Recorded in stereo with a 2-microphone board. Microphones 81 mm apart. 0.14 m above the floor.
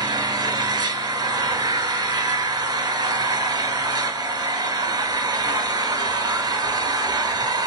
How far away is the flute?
No flute in this recording.